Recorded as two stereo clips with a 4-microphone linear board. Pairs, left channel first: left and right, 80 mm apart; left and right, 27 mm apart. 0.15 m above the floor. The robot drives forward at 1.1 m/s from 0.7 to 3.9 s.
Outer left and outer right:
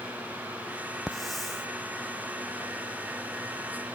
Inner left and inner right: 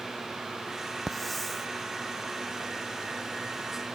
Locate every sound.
1.1 s a hiss: centre (ahead or behind)